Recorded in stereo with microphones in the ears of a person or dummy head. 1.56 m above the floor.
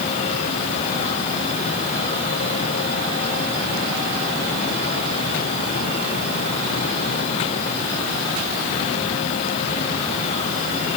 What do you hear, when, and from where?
Only background noise.